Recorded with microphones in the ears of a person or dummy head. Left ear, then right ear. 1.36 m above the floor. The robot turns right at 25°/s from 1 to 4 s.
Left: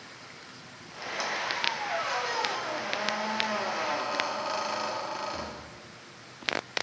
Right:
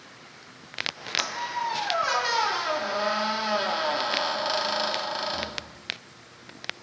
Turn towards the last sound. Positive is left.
turn(degrees=-40)